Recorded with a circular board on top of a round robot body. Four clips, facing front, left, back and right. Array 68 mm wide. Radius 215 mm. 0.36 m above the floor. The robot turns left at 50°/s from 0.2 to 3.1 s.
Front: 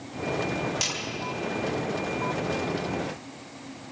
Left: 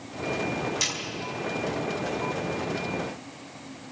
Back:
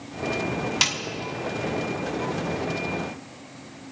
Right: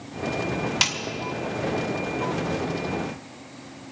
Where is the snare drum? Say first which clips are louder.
Right 5 dB, back 6 dB; 125° right, 2.5 m; by 1.0 s 130° right, 2.5 m.